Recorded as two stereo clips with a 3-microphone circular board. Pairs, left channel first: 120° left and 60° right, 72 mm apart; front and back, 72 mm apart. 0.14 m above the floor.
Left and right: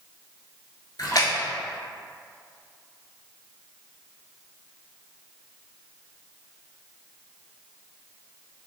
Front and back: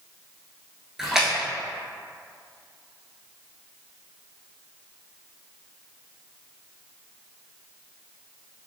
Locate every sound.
1.0 s a splash: 95° left, 0.7 m